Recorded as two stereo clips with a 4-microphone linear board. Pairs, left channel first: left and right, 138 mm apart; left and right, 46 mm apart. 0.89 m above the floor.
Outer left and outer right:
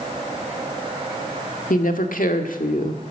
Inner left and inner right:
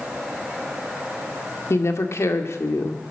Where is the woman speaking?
80° left, 1.7 m.